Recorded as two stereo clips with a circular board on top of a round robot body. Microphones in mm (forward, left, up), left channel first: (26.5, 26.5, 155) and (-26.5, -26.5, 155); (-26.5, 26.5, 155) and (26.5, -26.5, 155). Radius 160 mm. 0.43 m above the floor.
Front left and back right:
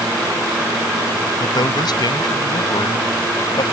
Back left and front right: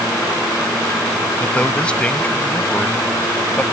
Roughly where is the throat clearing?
I don't hear throat clearing.